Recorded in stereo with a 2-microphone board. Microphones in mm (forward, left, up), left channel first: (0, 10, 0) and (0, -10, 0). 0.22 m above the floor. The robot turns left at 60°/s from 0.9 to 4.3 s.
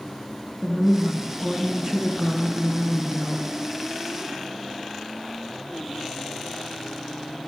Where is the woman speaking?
85° right, 2 m; by 3.5 s 125° left, 2 m.